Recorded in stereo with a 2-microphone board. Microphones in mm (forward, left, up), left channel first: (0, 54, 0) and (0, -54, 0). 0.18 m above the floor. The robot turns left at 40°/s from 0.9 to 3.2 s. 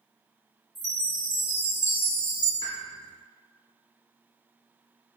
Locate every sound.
0.8 s a chime: straight behind, 1.4 m; by 2.5 s 115° left, 1.4 m
2.6 s a pop: 40° left (ahead or behind), 1.6 m; by 2.8 s 45° left (ahead or behind), 1.6 m